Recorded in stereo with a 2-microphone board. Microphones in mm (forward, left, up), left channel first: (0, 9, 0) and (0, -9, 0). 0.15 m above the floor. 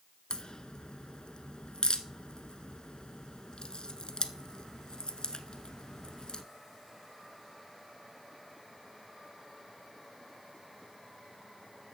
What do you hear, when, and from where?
0.3 s a crack: 50° left (ahead or behind), 0.7 m